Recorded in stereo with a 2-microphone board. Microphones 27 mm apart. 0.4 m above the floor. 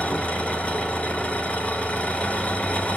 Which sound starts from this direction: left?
An engine running, at 0.0 s.